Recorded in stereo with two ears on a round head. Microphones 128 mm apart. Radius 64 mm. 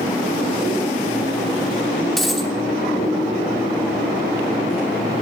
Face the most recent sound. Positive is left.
turn(degrees=0)  # may be behind; listen again after turning